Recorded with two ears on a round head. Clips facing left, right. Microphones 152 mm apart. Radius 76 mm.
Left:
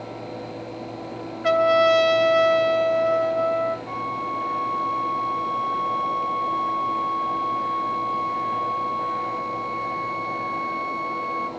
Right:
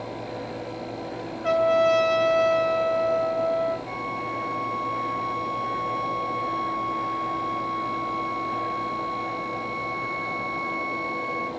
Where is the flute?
5° right (ahead or behind), 1.9 m.